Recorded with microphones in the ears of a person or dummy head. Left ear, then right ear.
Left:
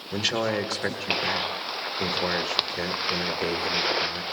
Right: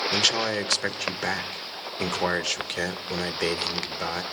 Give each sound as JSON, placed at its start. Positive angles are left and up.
{"t": 0.1, "sound": "a man speaking", "side_deg": -25, "distance_m": 1.2}